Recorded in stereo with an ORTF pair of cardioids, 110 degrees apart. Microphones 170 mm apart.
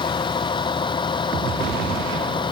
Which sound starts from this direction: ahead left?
A vehicle, at 0.0 s.